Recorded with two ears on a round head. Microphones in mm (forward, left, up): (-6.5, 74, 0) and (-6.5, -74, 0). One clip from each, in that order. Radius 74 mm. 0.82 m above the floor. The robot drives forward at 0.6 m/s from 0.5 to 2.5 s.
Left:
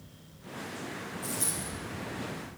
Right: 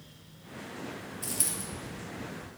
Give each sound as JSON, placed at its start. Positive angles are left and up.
{"t": 1.2, "sound": "a dropped coin", "side_deg": -60, "distance_m": 2.0}